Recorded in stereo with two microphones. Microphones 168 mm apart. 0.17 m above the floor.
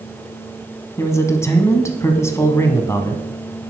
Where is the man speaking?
15° left (ahead or behind), 1.2 m.